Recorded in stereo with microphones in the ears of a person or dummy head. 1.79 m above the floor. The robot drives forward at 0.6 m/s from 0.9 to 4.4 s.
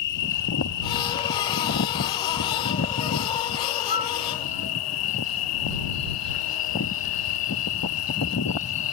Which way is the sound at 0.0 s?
60° left (ahead or behind).